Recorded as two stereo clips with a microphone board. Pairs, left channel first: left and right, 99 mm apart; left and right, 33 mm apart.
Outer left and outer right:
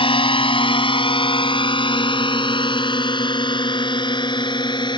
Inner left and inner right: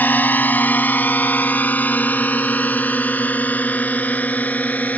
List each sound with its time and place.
0.0 s a drone: 65° left (ahead or behind); by 5.0 s 50° left (ahead or behind)